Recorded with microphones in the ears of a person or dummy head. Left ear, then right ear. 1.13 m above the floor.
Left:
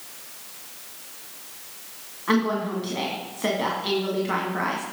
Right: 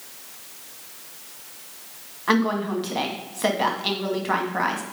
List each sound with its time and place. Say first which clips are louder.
2.3 s a woman speaking: right 2 dB; 30° right (ahead or behind), 1.7 m